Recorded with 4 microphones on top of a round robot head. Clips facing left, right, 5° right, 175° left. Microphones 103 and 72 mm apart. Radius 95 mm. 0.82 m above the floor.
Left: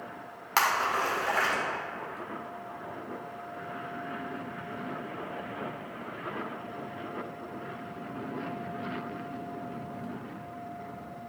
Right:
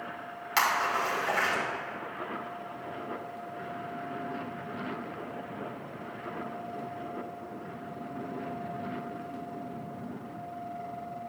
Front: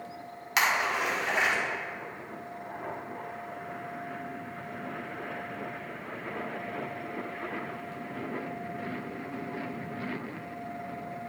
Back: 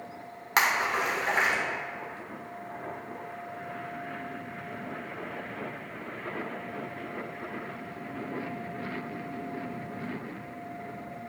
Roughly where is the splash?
Behind left.